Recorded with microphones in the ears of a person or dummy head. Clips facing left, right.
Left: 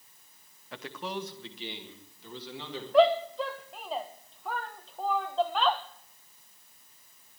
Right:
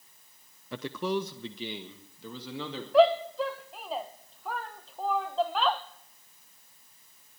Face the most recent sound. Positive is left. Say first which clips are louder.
# right 1 dB
turn(degrees=-5)  # may be behind; listen again after turning